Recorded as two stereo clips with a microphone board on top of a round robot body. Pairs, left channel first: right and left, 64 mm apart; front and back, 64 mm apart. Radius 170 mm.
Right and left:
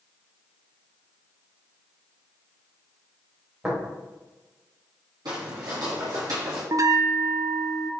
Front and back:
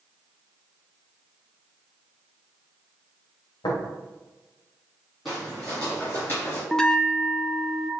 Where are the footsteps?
90° left, 1.5 m; by 6.6 s 55° left, 1.8 m.